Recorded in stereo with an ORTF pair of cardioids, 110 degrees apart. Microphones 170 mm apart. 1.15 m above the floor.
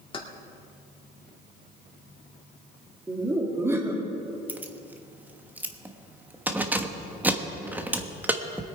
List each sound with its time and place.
0.1 s keys jangling: 30° left, 2 m
3.1 s laughter: 15° right, 2.5 m
4.5 s keys jangling: 10° right, 1.1 m